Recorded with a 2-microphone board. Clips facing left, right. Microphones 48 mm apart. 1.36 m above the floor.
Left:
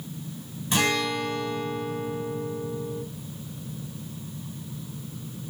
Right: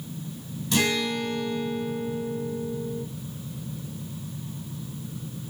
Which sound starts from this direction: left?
A guitar, at 0.7 s.